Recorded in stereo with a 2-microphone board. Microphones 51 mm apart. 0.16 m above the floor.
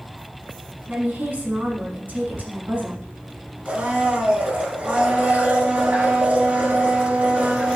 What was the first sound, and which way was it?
A woman speaking, 35° right (ahead or behind).